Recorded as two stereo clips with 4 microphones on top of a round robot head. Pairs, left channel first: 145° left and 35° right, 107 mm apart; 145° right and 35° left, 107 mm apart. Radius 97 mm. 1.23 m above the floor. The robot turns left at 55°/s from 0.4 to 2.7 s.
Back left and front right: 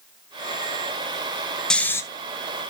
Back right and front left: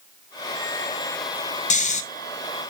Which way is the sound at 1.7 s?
135° right.